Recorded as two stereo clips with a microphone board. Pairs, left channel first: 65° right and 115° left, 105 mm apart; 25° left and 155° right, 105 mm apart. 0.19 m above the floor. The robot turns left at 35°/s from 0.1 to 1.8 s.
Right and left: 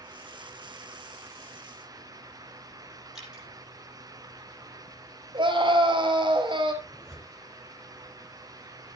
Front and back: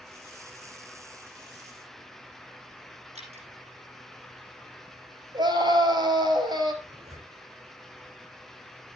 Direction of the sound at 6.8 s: 160° right.